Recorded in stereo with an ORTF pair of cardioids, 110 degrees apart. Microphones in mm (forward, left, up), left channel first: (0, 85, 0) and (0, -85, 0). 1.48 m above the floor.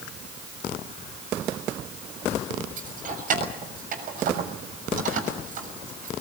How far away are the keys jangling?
About 6.5 m.